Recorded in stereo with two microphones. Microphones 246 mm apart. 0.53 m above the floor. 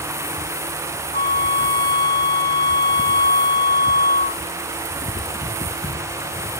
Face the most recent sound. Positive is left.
turn(degrees=40)  # may be behind; listen again after turning